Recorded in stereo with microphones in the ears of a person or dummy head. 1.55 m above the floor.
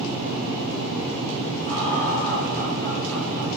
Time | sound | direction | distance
1.6 | laughter | 15° left (ahead or behind) | 4 m